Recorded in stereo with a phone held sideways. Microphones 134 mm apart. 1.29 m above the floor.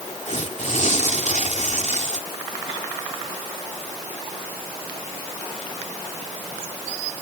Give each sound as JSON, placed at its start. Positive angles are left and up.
{"t": 0.3, "sound": "tearing paper", "side_deg": 65}